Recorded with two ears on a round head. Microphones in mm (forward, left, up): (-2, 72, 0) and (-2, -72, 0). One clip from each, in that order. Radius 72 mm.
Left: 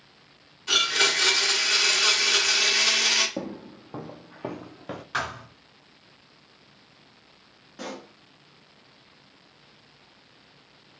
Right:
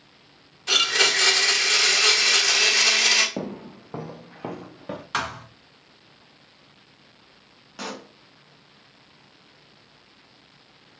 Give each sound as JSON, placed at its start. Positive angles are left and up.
{"t": 0.7, "sound": "a blender", "side_deg": -30, "distance_m": 1.4}
{"t": 3.4, "sound": "footsteps", "side_deg": -50, "distance_m": 0.8}
{"t": 5.1, "sound": "a thud", "side_deg": -50, "distance_m": 1.5}
{"t": 7.8, "sound": "a pop", "side_deg": -60, "distance_m": 0.9}